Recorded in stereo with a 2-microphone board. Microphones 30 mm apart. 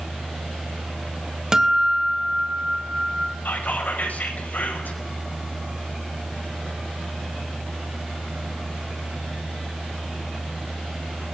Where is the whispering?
75° left (ahead or behind), 5.5 m.